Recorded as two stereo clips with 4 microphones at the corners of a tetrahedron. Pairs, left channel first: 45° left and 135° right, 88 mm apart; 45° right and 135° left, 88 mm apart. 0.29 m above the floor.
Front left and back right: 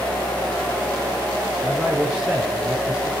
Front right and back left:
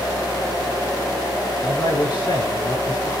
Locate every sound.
1.6 s a man speaking: 55° right, 7.5 m